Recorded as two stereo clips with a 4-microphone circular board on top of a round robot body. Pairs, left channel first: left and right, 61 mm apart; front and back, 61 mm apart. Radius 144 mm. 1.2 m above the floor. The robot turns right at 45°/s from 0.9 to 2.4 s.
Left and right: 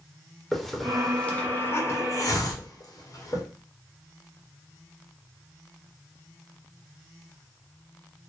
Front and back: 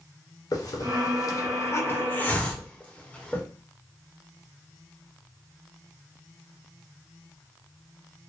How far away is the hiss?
About 1.1 m.